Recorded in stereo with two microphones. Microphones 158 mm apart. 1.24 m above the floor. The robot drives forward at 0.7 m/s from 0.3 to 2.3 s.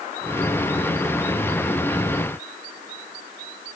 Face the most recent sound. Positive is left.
No sound to turn to.